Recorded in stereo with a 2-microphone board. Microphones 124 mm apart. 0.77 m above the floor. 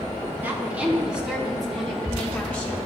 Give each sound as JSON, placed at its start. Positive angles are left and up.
{"t": 0.4, "sound": "a woman speaking", "side_deg": -15, "distance_m": 2.5}